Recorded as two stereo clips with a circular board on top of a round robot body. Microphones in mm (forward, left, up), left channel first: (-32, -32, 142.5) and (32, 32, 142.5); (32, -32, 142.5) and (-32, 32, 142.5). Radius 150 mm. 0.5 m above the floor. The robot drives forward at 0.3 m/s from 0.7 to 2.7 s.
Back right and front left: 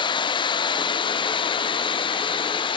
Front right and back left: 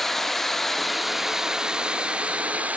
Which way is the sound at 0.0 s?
130° right.